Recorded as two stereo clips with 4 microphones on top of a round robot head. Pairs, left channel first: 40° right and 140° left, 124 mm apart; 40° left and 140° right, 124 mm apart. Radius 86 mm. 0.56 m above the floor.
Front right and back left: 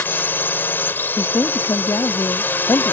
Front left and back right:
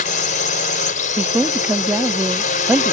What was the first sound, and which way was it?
A drone, 35° left.